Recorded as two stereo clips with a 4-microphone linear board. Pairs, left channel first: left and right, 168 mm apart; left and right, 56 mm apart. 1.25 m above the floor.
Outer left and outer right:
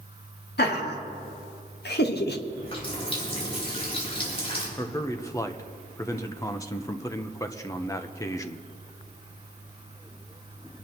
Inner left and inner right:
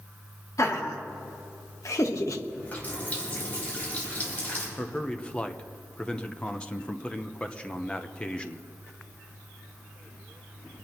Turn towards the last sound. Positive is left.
turn(degrees=20)  # may be behind; listen again after turning